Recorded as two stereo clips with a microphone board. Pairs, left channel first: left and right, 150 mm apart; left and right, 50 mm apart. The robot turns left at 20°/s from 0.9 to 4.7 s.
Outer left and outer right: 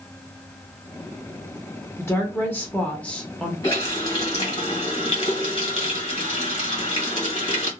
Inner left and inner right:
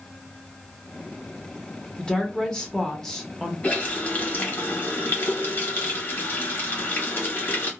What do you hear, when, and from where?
2.0 s a woman speaking: 15° left (ahead or behind), 0.9 m; by 3.5 s 5° left (ahead or behind), 0.9 m
3.6 s a running tap: 30° left (ahead or behind), 1.4 m; by 7.7 s 50° left (ahead or behind), 1.4 m